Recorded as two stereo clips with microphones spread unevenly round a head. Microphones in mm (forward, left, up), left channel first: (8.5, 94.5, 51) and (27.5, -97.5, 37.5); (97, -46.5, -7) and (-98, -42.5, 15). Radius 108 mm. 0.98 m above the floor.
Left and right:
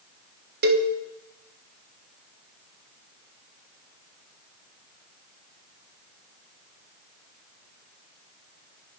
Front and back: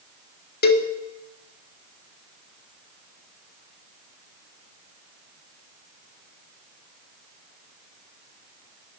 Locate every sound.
0.6 s a cowbell: 45° right, 1.2 m